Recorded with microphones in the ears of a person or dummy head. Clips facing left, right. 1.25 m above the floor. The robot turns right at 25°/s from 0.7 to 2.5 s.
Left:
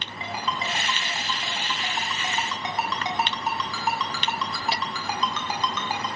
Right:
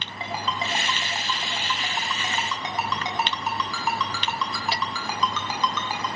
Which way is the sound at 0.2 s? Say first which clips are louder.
Right 1 dB; 35° right (ahead or behind).